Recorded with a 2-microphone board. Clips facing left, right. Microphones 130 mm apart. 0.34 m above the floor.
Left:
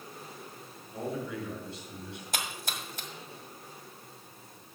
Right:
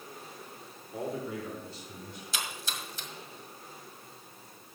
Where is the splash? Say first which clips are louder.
Left 1 dB; 60° left (ahead or behind), 1.5 m.